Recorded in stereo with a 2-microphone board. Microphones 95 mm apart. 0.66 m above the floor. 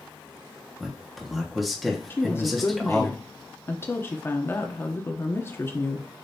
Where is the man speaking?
Centre (ahead or behind), 1.0 m.